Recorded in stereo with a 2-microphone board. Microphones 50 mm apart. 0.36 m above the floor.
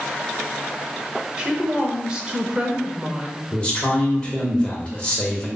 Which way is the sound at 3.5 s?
20° left (ahead or behind).